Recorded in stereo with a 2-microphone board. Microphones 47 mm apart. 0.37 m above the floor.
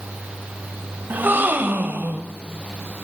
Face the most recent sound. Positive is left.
turn(degrees=-40)  # may be behind; listen again after turning